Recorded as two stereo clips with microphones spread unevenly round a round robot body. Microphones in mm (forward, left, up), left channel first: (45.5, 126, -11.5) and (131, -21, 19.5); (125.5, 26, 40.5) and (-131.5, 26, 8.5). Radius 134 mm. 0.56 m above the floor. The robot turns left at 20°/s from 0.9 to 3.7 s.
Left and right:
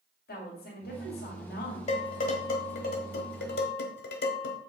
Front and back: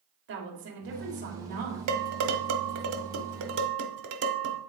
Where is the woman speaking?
145° left, 2 m; by 1.8 s 125° left, 2 m.